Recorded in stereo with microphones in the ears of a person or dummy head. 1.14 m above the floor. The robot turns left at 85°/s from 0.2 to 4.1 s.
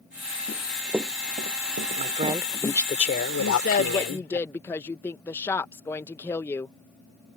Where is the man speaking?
125° right; by 4.4 s 50° left.